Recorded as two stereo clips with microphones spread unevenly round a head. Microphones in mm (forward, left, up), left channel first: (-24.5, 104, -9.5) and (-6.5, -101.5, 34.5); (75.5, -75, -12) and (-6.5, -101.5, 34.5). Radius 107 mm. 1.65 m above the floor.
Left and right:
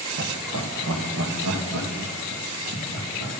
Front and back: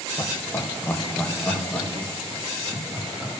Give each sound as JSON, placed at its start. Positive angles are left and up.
{"t": 0.2, "sound": "laughter", "azimuth_deg": -45, "distance_m": 1.4}